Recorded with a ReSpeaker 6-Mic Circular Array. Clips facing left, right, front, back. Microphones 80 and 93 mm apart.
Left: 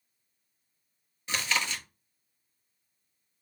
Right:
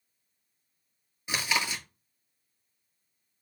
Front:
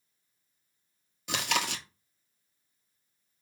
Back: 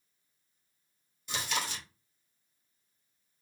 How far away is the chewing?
About 0.7 m.